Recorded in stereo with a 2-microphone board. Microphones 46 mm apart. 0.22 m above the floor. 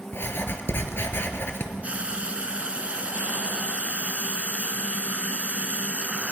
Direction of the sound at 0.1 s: 60° left (ahead or behind).